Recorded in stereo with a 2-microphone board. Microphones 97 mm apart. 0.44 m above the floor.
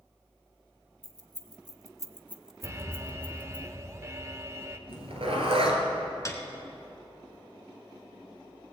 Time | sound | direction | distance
1.0 | keys jangling | 40° right (ahead or behind) | 1.1 m
2.6 | an alarm | 30° right (ahead or behind) | 0.7 m
4.9 | a zipper | 80° right | 2 m
6.2 | a piano | 35° left (ahead or behind) | 1.2 m